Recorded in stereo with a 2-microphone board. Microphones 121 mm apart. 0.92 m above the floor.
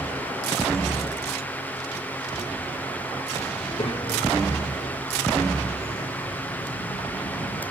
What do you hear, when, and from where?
3.6 s a child speaking: 45° left (ahead or behind), 2.5 m; by 7.6 s 70° left (ahead or behind), 5.5 m